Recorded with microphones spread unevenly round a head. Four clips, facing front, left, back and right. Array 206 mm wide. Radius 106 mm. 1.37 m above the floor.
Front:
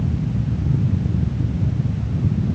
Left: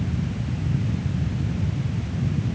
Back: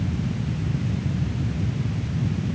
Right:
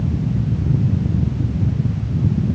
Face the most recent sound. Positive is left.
No sound to turn to.